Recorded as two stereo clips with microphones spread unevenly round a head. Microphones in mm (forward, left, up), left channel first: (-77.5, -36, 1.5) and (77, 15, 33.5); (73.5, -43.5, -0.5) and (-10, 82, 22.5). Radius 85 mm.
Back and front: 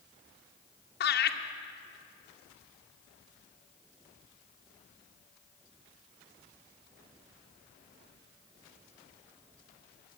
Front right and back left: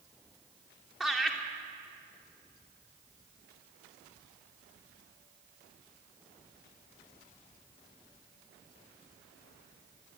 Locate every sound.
1.0 s laughter: 145° right, 2.5 m